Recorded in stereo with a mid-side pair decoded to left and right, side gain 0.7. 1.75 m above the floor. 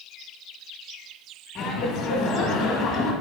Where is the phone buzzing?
No phone buzzing in this recording.